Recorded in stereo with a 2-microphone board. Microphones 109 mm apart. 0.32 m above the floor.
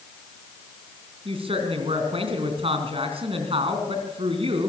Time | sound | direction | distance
1.2 | a woman speaking | 65° right (ahead or behind) | 3.5 m